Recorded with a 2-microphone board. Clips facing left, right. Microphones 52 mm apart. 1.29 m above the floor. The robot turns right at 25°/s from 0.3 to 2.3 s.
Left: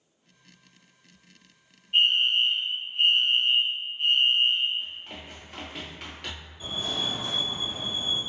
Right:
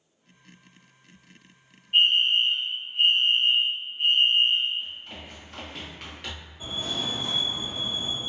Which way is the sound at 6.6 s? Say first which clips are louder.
Even; 25° right (ahead or behind).